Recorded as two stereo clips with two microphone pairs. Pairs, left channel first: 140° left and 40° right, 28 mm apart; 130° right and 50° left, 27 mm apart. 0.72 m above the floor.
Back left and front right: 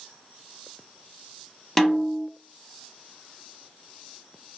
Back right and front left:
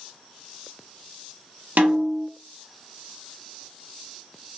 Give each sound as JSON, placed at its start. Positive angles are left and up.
{"t": 1.8, "sound": "a snare drum", "azimuth_deg": 65, "distance_m": 0.7}